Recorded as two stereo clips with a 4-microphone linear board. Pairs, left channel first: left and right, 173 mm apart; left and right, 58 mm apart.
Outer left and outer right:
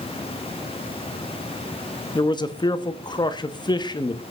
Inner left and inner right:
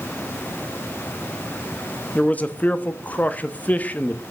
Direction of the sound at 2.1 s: 25° left (ahead or behind).